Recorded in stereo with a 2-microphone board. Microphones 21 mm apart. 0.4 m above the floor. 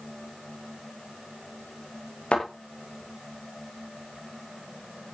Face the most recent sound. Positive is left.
turn(degrees=70)  # may be behind; listen again after turning